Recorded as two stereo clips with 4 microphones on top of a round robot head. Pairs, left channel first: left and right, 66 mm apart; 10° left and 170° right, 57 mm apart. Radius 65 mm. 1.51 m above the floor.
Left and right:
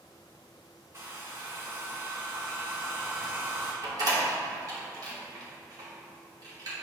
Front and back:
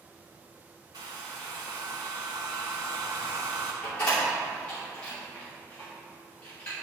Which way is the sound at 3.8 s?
65° right.